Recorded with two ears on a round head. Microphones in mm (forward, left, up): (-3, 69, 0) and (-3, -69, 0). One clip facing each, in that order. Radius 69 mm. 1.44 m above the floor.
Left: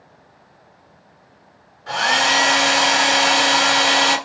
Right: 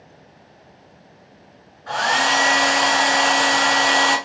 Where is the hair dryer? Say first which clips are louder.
Even; 30° left (ahead or behind), 2 m.